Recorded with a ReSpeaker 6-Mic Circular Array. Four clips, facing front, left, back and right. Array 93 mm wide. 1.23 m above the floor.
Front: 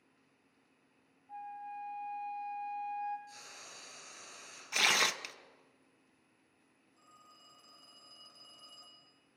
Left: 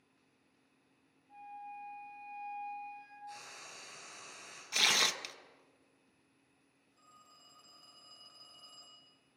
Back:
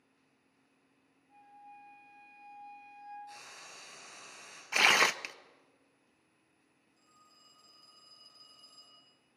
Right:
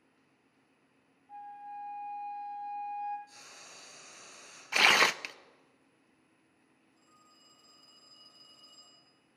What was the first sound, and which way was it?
A flute, 45° right.